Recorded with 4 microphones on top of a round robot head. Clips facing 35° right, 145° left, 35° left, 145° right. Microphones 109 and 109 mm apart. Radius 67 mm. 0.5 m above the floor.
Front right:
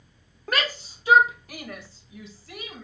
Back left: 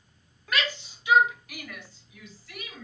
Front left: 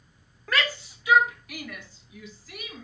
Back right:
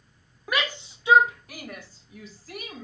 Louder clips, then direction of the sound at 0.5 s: Front right 2 dB, even; 70° right.